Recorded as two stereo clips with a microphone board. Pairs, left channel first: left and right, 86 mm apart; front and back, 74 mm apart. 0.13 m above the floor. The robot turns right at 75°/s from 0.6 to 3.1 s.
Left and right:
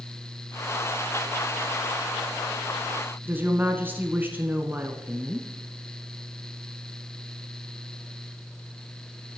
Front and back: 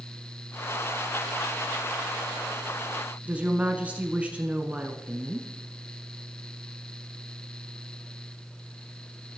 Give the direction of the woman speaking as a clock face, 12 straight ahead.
4 o'clock.